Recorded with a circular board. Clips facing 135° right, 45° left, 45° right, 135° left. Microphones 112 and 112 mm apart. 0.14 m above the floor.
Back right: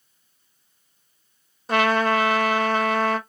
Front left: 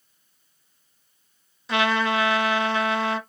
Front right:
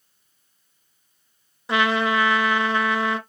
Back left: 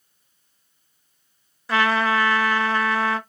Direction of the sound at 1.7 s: 110° right.